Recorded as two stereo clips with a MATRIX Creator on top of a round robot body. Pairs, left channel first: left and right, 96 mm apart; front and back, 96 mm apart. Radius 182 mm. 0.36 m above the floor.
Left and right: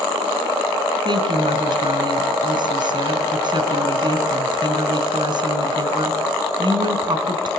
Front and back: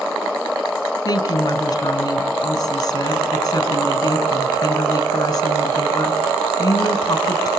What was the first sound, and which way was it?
A woman speaking, 55° right.